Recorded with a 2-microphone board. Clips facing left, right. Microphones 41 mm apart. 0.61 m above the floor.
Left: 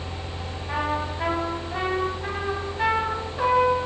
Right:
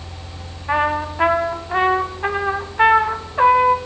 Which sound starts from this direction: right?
A trumpet, at 0.7 s.